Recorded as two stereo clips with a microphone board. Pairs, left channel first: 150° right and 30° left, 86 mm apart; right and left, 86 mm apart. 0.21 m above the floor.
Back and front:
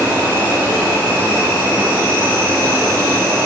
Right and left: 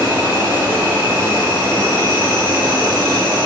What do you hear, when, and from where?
0.0 s an insect: 65° left, 1.8 m